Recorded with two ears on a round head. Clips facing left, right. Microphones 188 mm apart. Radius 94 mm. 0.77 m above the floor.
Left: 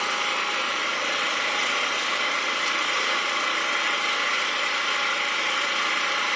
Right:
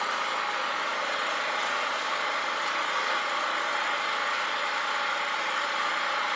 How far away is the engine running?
About 1.1 m.